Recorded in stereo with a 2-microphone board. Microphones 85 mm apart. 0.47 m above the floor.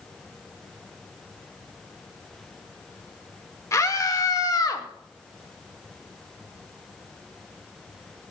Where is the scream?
40° left (ahead or behind), 1.7 m; by 4.9 s 50° left (ahead or behind), 2.0 m.